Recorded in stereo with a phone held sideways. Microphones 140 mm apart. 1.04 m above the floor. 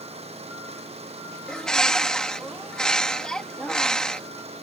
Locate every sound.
0.0 s an engine running: 45° right (ahead or behind)
1.5 s a bird: 5° left (ahead or behind)